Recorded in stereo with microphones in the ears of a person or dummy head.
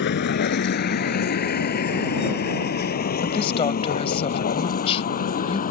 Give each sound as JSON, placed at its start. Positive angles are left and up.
{"t": 0.0, "sound": "a vehicle", "side_deg": 60}
{"t": 3.2, "sound": "a woman speaking", "side_deg": 25}